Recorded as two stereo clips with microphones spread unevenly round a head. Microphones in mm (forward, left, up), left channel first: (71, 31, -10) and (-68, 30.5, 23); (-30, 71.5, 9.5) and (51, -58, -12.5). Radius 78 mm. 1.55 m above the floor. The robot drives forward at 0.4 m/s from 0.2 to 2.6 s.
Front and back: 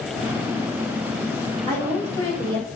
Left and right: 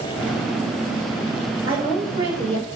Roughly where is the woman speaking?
Behind right.